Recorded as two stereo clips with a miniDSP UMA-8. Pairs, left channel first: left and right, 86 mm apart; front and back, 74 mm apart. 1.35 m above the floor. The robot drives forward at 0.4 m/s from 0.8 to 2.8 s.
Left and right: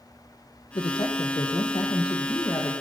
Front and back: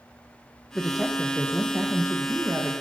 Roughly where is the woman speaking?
Left.